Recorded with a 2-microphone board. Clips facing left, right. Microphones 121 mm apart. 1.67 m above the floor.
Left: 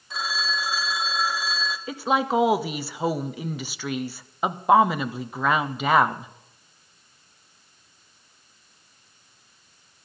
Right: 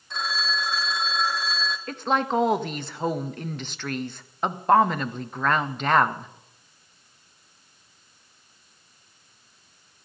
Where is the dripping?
I don't hear dripping.